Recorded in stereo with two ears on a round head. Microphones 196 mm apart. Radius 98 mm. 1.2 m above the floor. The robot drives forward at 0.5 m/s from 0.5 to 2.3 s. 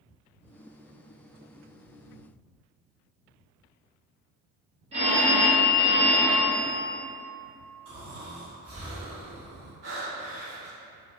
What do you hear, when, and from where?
4.9 s a phone ringing: 30° right (ahead or behind), 1.0 m
7.8 s snoring: 70° right (ahead or behind), 2.0 m
9.8 s breathing: 50° right (ahead or behind), 1.8 m